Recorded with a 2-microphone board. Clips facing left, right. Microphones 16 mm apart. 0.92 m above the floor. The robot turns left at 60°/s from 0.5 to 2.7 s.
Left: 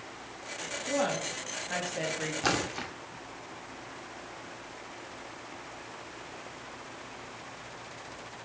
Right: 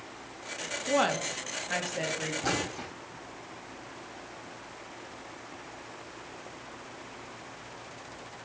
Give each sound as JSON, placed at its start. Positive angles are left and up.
{"t": 0.9, "sound": "a woman speaking", "azimuth_deg": -115, "distance_m": 1.3}
{"t": 2.4, "sound": "a splash", "side_deg": 55, "distance_m": 1.5}